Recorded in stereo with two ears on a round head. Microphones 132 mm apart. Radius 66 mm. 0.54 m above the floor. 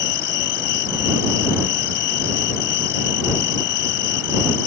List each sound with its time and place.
0.0 s an insect: 80° left